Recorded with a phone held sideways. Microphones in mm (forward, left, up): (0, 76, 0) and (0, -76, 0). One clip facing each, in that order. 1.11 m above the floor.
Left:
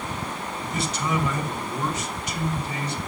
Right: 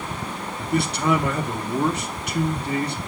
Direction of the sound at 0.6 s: 60° right (ahead or behind).